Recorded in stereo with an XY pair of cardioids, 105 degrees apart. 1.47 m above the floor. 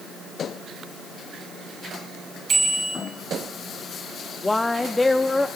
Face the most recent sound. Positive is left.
turn(degrees=15)